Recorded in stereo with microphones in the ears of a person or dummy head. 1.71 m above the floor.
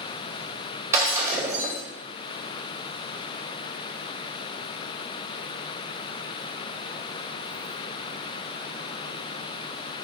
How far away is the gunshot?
No gunshot in this recording.